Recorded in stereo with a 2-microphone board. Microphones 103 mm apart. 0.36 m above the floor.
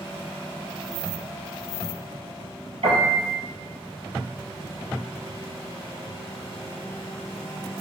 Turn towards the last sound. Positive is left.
turn(degrees=-85)